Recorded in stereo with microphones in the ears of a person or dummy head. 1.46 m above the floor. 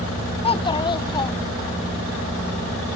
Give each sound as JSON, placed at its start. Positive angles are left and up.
{"t": 0.4, "sound": "a child speaking", "side_deg": 25}